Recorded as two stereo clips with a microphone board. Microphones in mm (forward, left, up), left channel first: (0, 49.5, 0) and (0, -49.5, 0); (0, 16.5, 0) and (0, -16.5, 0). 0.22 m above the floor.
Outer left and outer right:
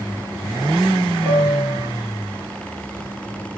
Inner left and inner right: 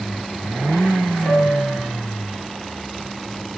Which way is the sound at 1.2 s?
25° right (ahead or behind).